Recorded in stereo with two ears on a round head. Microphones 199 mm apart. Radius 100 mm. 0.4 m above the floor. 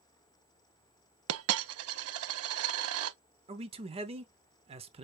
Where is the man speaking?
25° right (ahead or behind), 0.8 m.